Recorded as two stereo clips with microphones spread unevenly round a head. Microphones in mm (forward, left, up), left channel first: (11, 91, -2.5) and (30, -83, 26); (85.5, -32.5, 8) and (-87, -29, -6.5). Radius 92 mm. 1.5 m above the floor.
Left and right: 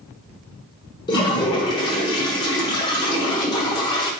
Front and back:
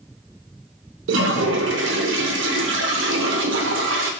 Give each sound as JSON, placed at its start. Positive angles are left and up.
{"t": 1.1, "sound": "a toilet flushing", "azimuth_deg": 160, "distance_m": 0.8}